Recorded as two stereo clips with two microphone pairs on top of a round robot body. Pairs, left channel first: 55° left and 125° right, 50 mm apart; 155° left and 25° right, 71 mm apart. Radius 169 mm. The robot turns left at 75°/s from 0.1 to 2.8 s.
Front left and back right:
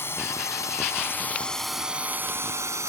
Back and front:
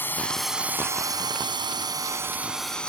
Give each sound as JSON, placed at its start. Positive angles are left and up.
{"t": 0.0, "sound": "a drone", "azimuth_deg": 95}